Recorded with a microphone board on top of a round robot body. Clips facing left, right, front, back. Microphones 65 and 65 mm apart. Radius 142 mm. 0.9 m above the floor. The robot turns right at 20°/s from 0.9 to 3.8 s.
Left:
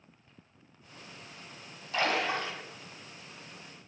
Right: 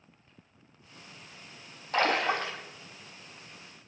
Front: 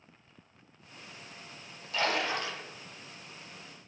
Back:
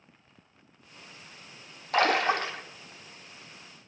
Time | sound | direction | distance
1.9 | a splash | 145° right | 0.6 m